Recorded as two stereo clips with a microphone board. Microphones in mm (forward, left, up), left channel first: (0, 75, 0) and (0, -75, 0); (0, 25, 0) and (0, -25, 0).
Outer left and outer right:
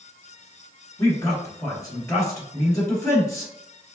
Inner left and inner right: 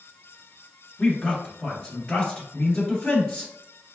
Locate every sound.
1.0 s a man speaking: 20° left (ahead or behind), 1.7 m